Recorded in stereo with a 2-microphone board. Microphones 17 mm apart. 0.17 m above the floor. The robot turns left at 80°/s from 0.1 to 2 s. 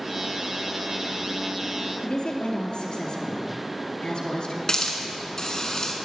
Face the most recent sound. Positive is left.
turn(degrees=35)  # may be behind; listen again after turning